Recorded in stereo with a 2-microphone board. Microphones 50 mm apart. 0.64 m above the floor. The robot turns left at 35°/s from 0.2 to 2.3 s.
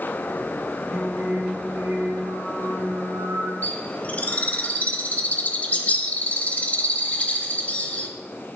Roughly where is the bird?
Left.